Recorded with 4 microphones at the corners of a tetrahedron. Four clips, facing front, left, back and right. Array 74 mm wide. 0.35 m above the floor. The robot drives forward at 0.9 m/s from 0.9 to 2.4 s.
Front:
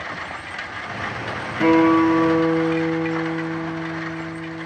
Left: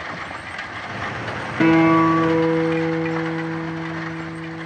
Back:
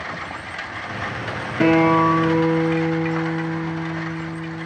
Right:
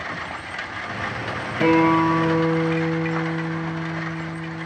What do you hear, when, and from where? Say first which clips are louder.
1.6 s a guitar: left 3 dB, even; 110° left, 4 m; by 4.7 s 120° left, 4 m